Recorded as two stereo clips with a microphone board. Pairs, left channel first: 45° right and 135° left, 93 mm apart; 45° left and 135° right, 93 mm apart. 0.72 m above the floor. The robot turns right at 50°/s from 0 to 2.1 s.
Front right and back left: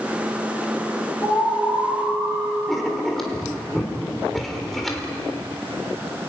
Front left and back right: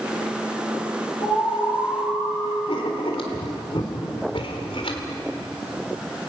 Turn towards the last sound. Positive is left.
turn(degrees=45)